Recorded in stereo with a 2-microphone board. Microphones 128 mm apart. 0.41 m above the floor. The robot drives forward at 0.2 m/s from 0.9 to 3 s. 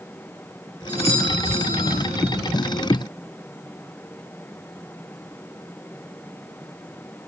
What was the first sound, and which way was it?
A doorbell, 70° left (ahead or behind).